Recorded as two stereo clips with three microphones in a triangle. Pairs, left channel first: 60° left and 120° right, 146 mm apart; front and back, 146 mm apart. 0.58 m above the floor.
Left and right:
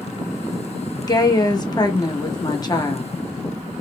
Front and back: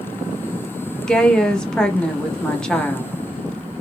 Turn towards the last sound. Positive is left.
turn(degrees=80)